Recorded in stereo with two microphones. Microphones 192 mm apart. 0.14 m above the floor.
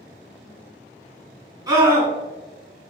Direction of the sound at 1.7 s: 15° right (ahead or behind).